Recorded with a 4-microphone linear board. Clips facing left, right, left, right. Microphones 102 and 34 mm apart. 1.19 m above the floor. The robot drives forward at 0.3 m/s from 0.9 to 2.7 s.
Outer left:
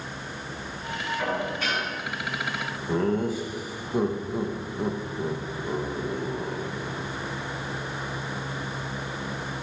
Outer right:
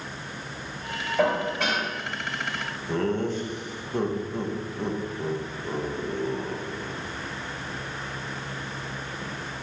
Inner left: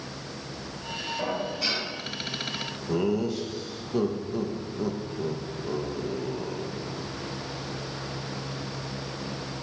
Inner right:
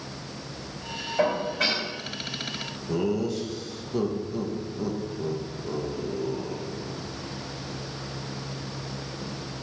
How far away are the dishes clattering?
About 3.5 m.